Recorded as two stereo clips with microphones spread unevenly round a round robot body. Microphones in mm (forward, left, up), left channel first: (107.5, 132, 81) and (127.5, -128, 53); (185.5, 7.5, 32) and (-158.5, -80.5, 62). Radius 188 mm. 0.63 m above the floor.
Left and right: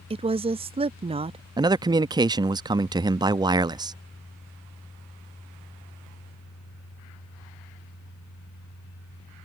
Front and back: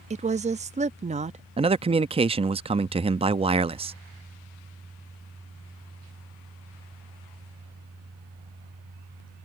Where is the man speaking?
105° right.